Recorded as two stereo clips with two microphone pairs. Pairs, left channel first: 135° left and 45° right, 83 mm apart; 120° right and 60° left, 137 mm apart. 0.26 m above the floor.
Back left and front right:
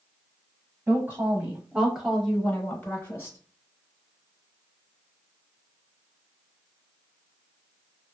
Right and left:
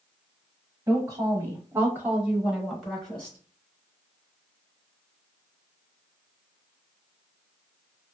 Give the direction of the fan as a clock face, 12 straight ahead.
I don't hear a fan.